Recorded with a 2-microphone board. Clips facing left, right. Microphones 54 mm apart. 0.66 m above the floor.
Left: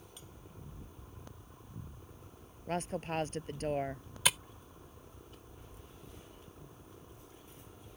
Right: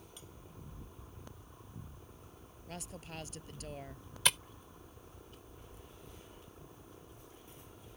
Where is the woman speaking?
40° left (ahead or behind).